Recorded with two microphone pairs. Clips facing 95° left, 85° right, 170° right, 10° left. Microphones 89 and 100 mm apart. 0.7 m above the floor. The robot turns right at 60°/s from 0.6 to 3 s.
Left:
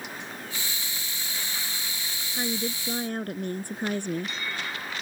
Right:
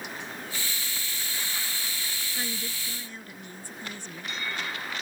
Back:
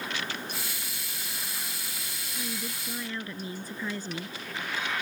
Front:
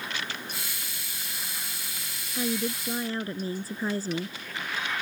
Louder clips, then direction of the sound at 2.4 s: Left 8 dB, front 9 dB; 30° left.